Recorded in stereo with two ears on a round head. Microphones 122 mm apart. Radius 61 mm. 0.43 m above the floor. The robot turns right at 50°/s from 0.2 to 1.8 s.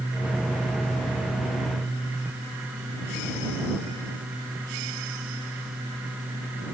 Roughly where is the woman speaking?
I don't hear a woman speaking.